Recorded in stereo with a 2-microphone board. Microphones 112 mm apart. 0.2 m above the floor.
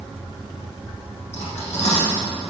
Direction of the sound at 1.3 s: 80° left.